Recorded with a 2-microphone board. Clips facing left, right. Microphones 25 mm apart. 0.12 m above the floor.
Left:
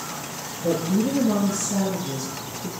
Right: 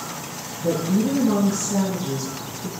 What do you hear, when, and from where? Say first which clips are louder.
0.6 s a woman speaking: right 1 dB; 20° right (ahead or behind), 1.9 m